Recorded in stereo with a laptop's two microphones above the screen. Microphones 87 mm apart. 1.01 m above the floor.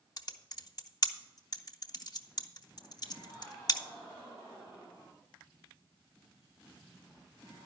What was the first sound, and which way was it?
Typing on a keyboard, 45° left (ahead or behind).